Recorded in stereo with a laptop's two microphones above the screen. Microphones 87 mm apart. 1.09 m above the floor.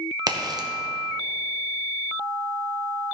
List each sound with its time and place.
0.3 s a crack: 50° right (ahead or behind), 0.9 m